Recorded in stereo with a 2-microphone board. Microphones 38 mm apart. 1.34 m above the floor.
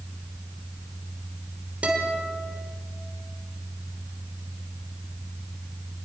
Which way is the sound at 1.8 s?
35° right (ahead or behind).